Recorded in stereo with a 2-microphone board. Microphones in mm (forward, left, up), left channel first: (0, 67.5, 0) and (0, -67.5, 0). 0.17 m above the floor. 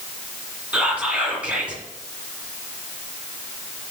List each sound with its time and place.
0.7 s whispering: 10° right (ahead or behind), 1.5 m